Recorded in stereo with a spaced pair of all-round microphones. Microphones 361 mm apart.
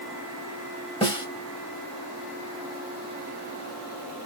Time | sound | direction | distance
1.0 | a snare drum | 15° left (ahead or behind) | 1.6 m